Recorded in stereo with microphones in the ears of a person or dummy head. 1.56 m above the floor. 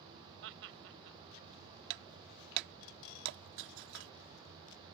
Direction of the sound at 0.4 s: 70° right (ahead or behind).